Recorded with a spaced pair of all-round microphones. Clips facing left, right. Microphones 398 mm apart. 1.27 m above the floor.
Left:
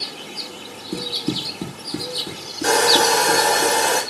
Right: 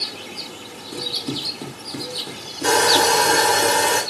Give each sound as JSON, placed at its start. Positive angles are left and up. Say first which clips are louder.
{"t": 0.9, "sound": "running footsteps", "louder": "left 4 dB", "side_deg": 40, "distance_m": 1.6}
{"t": 2.6, "sound": "sawing", "louder": "left 1 dB", "side_deg": -10, "distance_m": 4.0}